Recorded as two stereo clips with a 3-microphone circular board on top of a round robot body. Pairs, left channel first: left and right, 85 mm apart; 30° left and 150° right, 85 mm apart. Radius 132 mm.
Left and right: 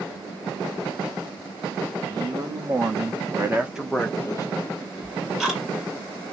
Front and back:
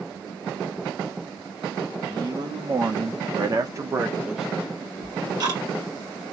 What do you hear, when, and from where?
2.1 s a man speaking: 120° right, 2.0 m; by 4.5 s 125° left, 1.0 m
5.0 s ticking: 175° right, 2.0 m